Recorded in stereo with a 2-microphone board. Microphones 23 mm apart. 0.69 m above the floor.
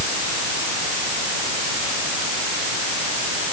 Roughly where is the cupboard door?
I don't hear a cupboard door.